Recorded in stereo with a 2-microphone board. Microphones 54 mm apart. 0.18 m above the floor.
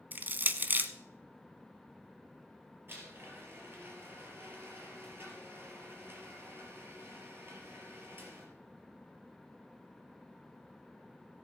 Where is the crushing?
35° right (ahead or behind), 0.8 m.